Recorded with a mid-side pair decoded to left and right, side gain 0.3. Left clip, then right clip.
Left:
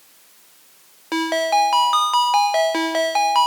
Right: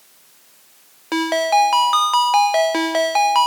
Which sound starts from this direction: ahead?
A ringtone, at 1.1 s.